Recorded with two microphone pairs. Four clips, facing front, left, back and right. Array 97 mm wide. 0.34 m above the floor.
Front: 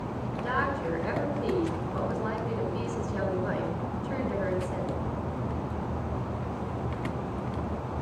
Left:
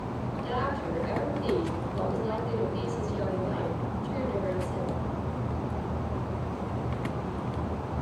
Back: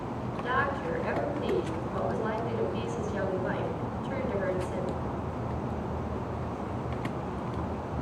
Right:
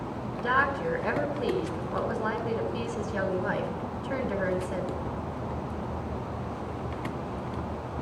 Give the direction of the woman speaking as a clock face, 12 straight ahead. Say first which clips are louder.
Right 6 dB, even; 3 o'clock.